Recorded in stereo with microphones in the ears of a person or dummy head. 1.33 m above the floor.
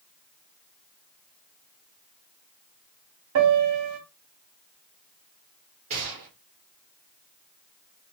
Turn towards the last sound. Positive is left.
turn(degrees=-35)  # may be behind; listen again after turning